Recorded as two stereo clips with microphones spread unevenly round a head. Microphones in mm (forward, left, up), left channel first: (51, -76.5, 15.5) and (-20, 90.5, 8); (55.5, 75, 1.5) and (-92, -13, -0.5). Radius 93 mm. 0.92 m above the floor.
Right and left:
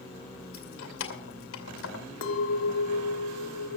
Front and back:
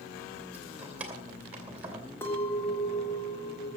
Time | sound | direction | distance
0.5 | keys jangling | 65° right | 2.5 m
2.2 | a clink | 50° right | 1.8 m